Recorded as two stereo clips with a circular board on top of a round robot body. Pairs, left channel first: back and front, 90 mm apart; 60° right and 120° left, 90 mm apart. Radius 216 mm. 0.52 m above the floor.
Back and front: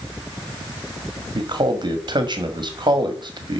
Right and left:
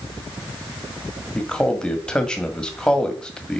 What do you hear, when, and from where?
1.4 s a man speaking: 20° left, 1.9 m